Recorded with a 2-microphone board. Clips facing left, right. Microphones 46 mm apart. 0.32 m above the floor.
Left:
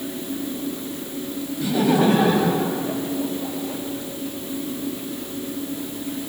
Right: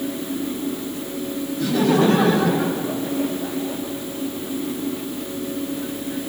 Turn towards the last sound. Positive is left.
turn(degrees=5)  # may be behind; listen again after turning